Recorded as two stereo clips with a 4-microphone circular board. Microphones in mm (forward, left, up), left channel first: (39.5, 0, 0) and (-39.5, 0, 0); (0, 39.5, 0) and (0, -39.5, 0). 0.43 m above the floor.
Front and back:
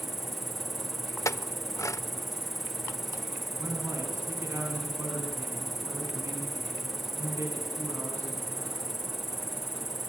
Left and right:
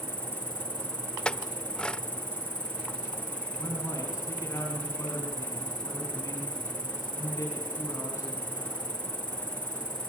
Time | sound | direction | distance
0.0 | an insect | 90° left | 0.8 m
1.2 | a clink | 15° left | 0.5 m
3.6 | a man speaking | 135° left | 4.5 m